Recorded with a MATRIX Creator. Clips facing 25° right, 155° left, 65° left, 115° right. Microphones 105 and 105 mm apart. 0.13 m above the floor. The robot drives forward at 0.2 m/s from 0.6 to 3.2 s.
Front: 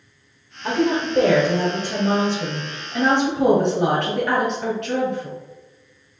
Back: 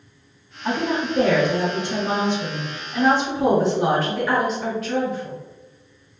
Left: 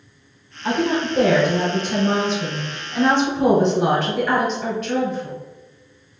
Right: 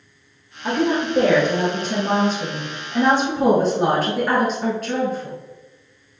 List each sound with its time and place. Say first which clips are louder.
0.6 s a woman speaking: front 3 dB, even; 60° right, 1.7 m; by 5.3 s 80° right, 1.6 m